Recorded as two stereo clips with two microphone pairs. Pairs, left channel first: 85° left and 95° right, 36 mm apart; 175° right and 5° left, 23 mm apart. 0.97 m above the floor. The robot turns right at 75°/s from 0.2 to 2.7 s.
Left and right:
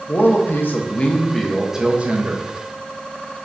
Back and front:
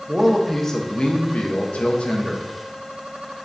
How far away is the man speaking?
About 0.6 m.